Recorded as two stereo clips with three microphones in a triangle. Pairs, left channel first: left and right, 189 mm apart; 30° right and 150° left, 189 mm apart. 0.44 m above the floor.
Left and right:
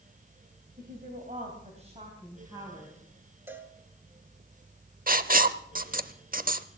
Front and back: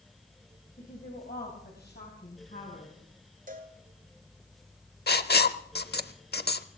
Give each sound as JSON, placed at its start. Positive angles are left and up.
{"t": 0.8, "sound": "a woman speaking", "azimuth_deg": -65, "distance_m": 3.5}
{"t": 3.5, "sound": "a cowbell", "azimuth_deg": -170, "distance_m": 1.6}
{"t": 5.1, "sound": "writing", "azimuth_deg": -50, "distance_m": 0.8}